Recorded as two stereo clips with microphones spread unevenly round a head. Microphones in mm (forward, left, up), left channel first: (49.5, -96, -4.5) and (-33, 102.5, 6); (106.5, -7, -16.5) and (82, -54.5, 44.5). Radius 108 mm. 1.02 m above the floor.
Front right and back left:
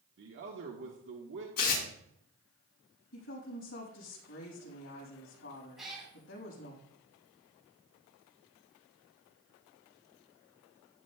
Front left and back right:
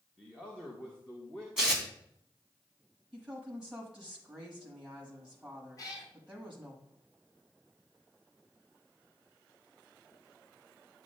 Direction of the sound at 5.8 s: 25° left.